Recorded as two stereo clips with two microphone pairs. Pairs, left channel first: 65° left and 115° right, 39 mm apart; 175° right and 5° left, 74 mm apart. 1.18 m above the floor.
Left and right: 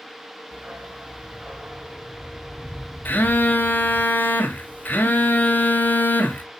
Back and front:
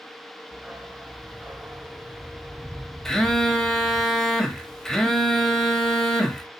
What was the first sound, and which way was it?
A dog barking, 70° right.